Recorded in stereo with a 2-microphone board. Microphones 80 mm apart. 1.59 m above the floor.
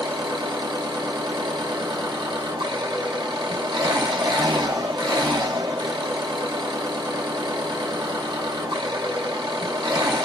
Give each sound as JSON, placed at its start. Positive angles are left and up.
{"t": 0.0, "sound": "an engine running", "side_deg": -75, "distance_m": 0.8}